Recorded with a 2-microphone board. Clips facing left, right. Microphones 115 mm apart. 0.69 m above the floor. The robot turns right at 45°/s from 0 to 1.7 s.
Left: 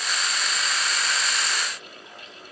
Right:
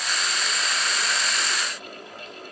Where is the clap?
I don't hear a clap.